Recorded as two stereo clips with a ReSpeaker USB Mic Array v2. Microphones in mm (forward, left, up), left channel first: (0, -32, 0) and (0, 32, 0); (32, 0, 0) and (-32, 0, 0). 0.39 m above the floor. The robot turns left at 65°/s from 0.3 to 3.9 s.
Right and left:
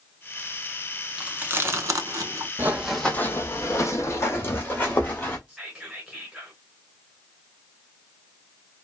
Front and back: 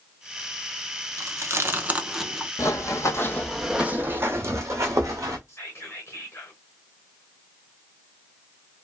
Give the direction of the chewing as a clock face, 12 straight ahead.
7 o'clock.